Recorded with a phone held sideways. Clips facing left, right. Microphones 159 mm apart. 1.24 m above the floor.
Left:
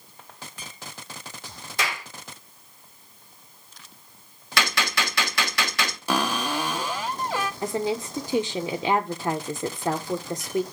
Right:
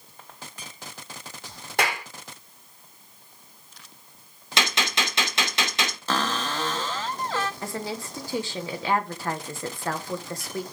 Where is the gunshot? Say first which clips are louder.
Left 1 dB; 20° right (ahead or behind), 2.5 m.